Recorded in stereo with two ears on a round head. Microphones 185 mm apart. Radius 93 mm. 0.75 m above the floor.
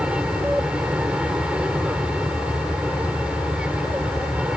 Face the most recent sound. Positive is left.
turn(degrees=-5)  # may be behind; listen again after turning